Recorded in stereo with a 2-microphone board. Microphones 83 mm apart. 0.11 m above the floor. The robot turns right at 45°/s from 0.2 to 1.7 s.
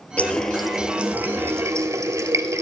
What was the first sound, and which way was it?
A running tap, 160° left.